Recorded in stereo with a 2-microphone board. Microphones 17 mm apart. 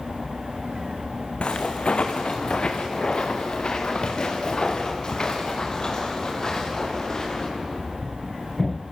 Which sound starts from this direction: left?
Footsteps, at 1.4 s.